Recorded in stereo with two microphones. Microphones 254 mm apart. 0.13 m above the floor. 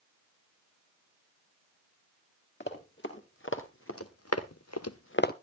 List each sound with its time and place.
2.6 s running footsteps: 45° left (ahead or behind), 3.5 m; by 5.3 s 35° left (ahead or behind), 1.0 m